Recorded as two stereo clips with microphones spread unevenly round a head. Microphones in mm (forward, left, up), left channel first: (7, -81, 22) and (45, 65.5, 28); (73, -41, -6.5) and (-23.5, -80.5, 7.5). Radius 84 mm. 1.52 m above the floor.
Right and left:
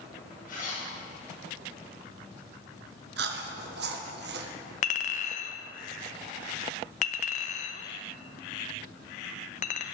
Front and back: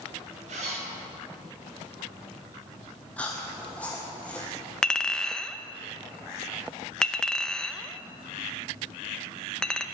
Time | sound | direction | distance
0.5 | a zipper | 150° right | 6 m
3.2 | chewing | 105° left | 1.3 m
4.8 | a clink | 65° right | 1.0 m